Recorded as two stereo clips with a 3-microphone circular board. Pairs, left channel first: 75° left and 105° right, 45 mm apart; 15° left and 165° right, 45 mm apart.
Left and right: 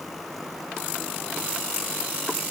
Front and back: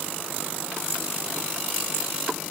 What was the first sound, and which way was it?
Only background noise.